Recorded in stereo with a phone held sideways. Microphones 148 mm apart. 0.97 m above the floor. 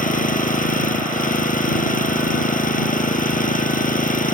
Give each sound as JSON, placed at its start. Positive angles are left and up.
{"t": 0.0, "sound": "an engine running", "side_deg": 65}